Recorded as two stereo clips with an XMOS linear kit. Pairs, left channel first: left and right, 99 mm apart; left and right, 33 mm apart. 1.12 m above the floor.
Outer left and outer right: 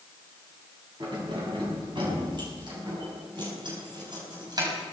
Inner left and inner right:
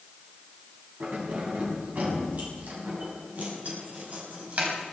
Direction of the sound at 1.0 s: 55° right (ahead or behind).